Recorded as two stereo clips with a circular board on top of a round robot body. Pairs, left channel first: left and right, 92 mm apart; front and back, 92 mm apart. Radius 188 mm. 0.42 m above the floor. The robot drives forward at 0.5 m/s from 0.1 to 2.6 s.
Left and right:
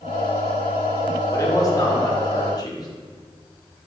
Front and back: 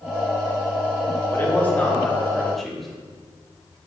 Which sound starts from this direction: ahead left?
A man speaking, at 1.3 s.